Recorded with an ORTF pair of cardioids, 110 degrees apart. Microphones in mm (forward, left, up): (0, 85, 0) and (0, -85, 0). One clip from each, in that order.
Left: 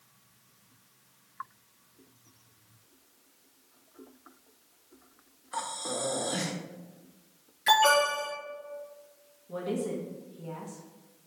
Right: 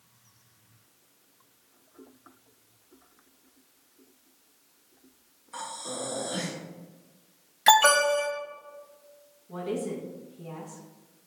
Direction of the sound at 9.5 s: 15° left.